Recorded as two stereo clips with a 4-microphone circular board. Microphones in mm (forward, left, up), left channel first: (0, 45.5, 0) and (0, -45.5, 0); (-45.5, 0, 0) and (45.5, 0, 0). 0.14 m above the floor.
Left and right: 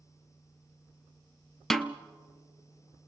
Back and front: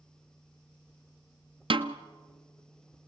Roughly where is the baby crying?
No baby crying in this recording.